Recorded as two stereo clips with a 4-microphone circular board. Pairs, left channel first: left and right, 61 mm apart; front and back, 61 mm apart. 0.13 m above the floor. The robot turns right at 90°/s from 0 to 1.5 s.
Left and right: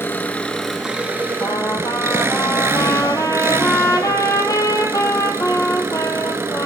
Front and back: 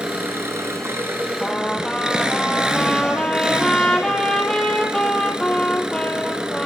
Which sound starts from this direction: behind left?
An engine running, at 0.0 s.